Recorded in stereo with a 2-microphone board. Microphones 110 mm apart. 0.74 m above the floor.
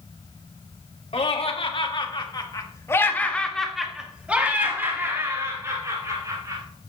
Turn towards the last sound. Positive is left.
turn(degrees=-35)  # may be behind; listen again after turning